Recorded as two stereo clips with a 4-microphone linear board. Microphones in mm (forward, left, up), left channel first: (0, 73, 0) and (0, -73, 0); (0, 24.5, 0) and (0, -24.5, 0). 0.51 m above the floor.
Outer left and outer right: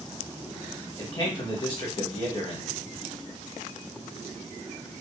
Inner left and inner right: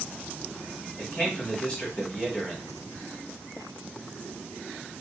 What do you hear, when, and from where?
1.0 s a man speaking: 35° left (ahead or behind), 1.5 m